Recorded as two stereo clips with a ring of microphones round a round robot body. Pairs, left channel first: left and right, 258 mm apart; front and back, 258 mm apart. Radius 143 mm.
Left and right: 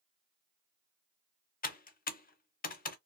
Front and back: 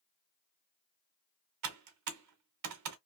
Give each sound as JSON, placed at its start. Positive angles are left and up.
{"t": 1.6, "sound": "typing on a keyboard", "azimuth_deg": 150, "distance_m": 0.7}